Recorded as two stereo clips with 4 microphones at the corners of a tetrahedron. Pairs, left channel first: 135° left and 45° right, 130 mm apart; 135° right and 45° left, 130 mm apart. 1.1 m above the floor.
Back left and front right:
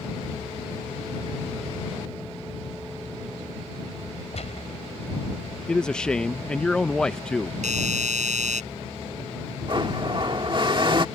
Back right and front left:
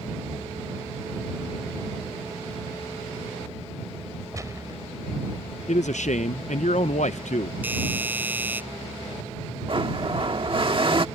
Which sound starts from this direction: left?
A gunshot, at 4.3 s.